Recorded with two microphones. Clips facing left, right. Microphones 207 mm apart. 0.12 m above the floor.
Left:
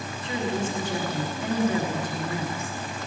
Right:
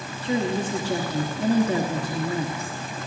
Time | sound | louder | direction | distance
0.2 | a woman speaking | right 4 dB | 35° right (ahead or behind) | 1.3 m